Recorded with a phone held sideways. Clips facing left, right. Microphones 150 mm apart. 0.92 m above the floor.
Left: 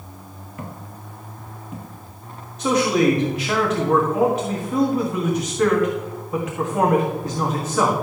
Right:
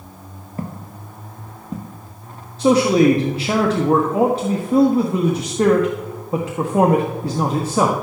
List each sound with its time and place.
0.6 s footsteps: 35° right (ahead or behind), 1.1 m
2.6 s a man speaking: 30° right (ahead or behind), 1.3 m